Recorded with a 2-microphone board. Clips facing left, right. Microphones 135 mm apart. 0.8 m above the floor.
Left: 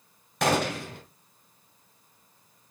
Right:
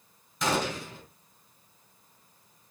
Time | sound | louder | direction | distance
0.4 | a gunshot | left 4 dB | 70° left (ahead or behind) | 2 m